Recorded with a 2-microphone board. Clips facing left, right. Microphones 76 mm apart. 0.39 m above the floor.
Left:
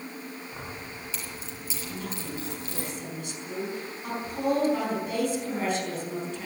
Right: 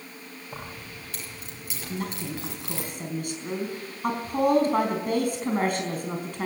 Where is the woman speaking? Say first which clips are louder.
Right 4 dB; 50° right (ahead or behind), 4 m.